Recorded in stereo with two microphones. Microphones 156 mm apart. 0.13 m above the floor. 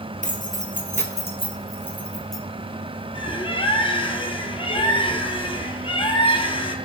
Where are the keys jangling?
55° left (ahead or behind), 1.7 m; by 2.4 s centre (ahead or behind), 2.0 m.